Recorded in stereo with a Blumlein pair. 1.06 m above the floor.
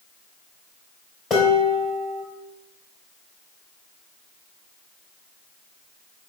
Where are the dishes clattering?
20° left, 3.5 m.